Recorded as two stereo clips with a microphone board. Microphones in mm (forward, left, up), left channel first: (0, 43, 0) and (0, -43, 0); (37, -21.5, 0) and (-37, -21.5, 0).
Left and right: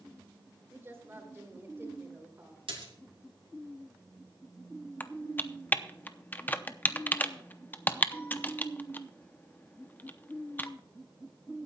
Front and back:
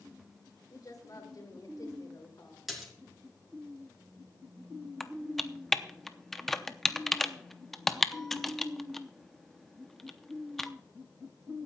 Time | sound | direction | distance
0.7 | a woman speaking | 30° right | 3 m
2.7 | a splash | 95° right | 3 m
5.0 | typing on a keyboard | 85° left | 0.7 m